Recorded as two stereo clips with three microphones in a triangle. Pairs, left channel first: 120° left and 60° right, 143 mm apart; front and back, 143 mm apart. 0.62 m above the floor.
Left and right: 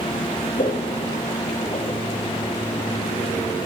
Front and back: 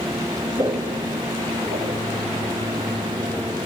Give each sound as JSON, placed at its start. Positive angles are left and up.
{"t": 0.6, "sound": "footsteps", "azimuth_deg": 125, "distance_m": 1.2}